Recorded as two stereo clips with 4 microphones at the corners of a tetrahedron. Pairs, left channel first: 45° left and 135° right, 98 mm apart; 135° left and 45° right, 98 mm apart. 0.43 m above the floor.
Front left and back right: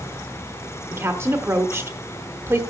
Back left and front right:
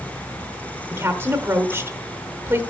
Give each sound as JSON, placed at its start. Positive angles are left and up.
{"t": 0.9, "sound": "a woman speaking", "azimuth_deg": -90, "distance_m": 1.0}